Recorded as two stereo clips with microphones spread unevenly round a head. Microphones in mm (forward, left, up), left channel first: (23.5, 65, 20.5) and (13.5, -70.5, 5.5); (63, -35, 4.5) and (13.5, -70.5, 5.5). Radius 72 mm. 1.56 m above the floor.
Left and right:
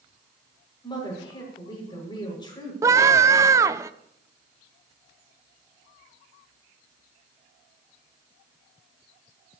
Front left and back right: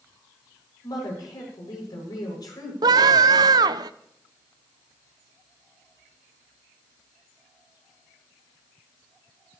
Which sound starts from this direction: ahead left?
A woman speaking, at 0.8 s.